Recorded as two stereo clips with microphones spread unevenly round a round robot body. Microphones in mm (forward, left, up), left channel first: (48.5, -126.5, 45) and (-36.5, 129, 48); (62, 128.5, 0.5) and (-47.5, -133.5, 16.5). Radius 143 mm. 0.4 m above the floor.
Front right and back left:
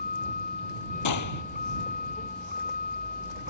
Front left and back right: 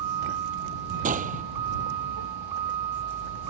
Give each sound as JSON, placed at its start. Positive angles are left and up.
{"t": 0.0, "sound": "a vehicle", "azimuth_deg": -135}
{"t": 1.1, "sound": "a gunshot", "azimuth_deg": -50}